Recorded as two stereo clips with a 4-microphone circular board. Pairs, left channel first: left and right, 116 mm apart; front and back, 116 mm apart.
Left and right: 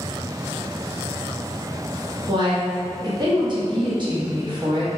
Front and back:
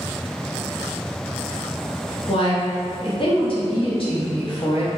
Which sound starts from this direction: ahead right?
A woman speaking, at 2.3 s.